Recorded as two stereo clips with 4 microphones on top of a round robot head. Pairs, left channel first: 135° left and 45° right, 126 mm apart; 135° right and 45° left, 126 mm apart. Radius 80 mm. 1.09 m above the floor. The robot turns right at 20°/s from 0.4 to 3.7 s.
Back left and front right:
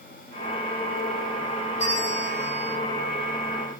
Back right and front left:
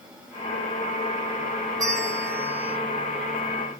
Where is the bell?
105° left, 1.6 m; by 2.8 s 125° left, 1.6 m.